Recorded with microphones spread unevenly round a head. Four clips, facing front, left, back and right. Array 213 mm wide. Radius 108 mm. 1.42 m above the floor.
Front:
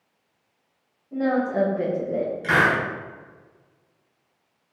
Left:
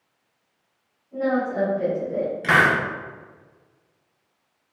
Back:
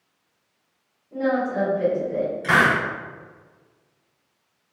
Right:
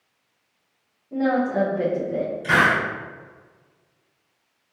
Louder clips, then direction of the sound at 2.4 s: Left 1 dB, back 2 dB; 105° left.